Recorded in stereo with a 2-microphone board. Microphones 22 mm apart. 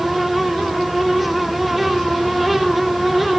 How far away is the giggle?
I don't hear a giggle.